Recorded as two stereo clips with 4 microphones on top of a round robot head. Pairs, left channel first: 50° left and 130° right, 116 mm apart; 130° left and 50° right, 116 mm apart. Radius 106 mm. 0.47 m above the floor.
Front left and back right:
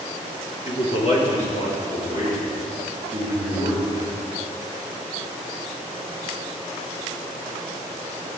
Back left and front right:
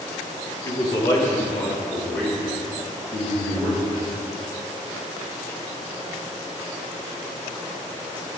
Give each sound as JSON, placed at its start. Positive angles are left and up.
{"t": 0.7, "sound": "a man speaking", "azimuth_deg": 75, "distance_m": 2.0}